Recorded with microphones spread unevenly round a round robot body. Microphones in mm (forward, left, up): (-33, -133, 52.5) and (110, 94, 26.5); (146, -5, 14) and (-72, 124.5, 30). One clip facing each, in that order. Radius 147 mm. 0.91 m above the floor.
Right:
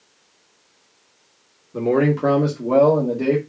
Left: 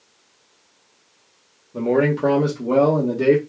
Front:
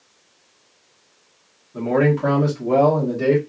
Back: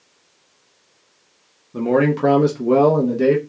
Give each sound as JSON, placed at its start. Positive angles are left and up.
{"t": 1.7, "sound": "a man speaking", "azimuth_deg": 170, "distance_m": 1.0}